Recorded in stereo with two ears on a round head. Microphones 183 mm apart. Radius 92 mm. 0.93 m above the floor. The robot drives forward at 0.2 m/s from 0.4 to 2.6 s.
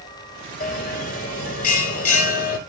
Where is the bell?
45° left (ahead or behind), 5 m.